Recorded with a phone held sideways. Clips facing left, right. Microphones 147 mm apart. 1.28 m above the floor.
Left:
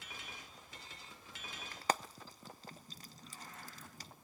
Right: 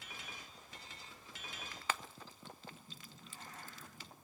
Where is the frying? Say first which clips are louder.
Left 6 dB; 40° left (ahead or behind), 0.5 m.